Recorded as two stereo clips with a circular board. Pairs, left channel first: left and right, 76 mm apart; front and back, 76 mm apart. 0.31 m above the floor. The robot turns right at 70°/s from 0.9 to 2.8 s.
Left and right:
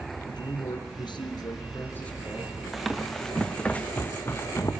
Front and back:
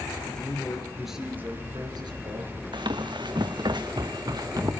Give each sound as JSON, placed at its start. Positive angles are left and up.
{"t": 0.3, "sound": "a man speaking", "azimuth_deg": 80, "distance_m": 5.0}
{"t": 2.7, "sound": "running footsteps", "azimuth_deg": 180, "distance_m": 1.6}